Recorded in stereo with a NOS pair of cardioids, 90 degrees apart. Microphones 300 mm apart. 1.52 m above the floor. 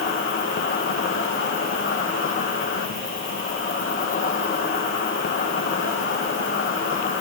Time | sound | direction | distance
0.0 | an insect | 45° left | 2 m